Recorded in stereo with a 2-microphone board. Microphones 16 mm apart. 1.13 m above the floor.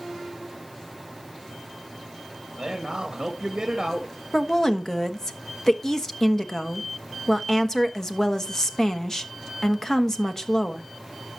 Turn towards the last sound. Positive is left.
turn(degrees=25)  # may be behind; listen again after turning